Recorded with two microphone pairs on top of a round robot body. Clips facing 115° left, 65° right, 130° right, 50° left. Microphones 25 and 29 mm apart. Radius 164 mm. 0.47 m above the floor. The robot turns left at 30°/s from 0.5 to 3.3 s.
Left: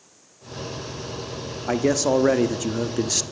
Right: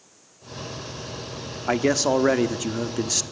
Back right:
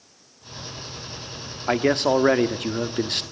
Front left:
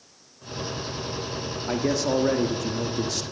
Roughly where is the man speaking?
Right.